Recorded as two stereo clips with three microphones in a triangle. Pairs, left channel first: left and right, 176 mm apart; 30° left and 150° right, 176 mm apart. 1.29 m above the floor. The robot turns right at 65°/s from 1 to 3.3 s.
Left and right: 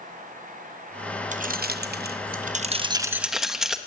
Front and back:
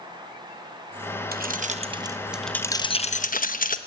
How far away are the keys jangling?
About 0.9 m.